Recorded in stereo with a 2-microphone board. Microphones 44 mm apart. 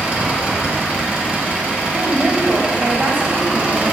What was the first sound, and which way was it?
An engine running, 30° right (ahead or behind).